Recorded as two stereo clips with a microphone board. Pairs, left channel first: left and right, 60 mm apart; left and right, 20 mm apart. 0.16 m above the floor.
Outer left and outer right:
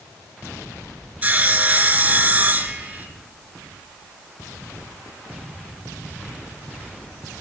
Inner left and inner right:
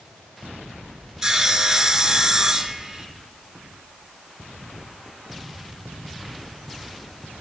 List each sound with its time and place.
1.2 s sawing: 30° right (ahead or behind), 0.9 m